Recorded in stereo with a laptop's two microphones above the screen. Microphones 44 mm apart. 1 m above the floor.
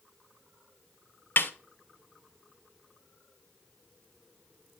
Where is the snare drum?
50° left (ahead or behind), 0.5 m.